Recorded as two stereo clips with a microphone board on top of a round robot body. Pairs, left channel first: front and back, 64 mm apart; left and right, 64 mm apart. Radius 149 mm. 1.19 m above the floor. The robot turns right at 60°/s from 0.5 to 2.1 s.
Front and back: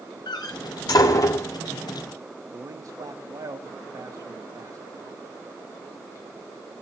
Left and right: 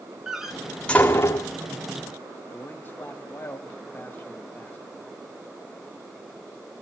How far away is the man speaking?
About 2 m.